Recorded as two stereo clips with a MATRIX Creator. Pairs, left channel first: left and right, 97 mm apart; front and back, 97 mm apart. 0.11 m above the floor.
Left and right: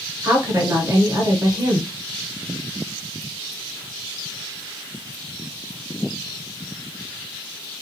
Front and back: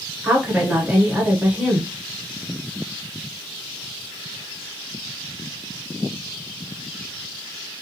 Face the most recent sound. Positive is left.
turn(degrees=-110)